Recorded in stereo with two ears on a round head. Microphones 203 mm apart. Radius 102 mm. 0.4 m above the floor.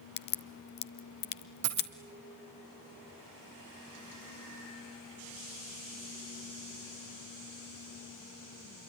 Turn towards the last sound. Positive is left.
turn(degrees=-85)